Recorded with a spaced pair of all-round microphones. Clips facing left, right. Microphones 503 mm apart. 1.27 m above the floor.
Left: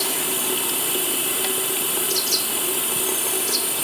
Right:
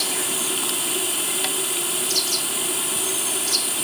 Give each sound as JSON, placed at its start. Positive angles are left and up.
{"t": 0.0, "sound": "running water", "side_deg": 70}